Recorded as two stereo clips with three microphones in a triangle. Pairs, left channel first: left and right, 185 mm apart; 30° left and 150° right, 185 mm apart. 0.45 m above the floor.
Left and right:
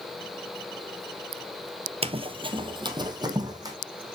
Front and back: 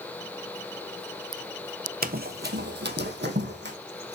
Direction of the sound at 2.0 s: 140° right.